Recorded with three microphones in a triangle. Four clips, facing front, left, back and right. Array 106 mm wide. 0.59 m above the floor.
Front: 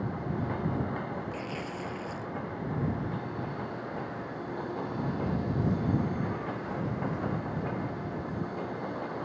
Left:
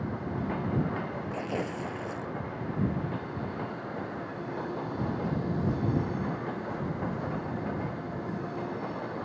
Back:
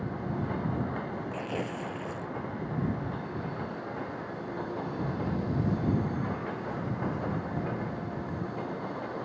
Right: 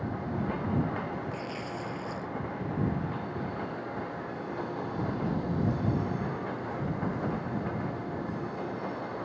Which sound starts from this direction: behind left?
Tearing paper, at 1.3 s.